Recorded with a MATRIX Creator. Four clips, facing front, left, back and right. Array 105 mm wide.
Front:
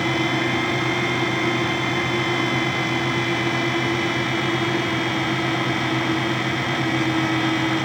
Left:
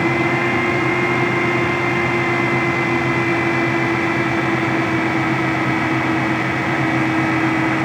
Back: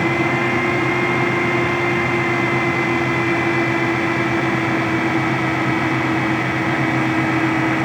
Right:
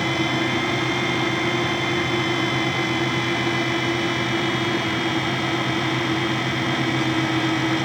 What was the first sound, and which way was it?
Only background noise.